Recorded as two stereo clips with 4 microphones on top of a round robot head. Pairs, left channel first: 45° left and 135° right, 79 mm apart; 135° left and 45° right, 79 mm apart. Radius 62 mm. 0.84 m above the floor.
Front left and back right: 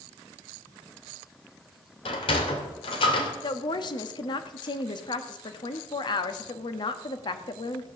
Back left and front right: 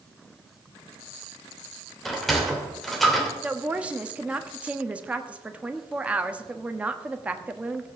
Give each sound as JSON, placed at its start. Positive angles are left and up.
{"t": 2.0, "sound": "a sliding door", "azimuth_deg": 45, "distance_m": 2.0}
{"t": 3.4, "sound": "a woman speaking", "azimuth_deg": 25, "distance_m": 1.2}